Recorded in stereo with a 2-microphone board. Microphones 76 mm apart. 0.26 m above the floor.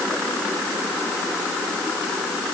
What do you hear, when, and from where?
Only background noise.